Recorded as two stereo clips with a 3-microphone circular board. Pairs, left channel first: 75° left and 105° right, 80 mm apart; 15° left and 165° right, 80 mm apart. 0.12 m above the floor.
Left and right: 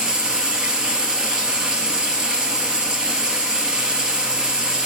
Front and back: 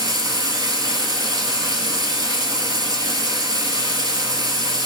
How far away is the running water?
About 1.3 m.